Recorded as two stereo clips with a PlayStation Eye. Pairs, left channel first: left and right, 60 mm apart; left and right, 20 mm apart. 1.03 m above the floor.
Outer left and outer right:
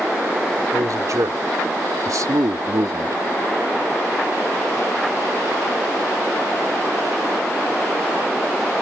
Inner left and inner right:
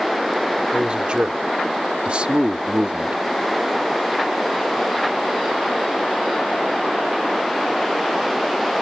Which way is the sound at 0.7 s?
65° right (ahead or behind).